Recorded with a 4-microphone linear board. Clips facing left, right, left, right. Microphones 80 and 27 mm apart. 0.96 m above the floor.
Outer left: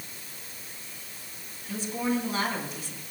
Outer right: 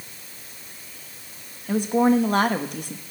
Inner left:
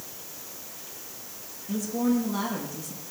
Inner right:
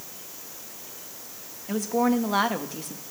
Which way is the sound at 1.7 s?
60° right (ahead or behind).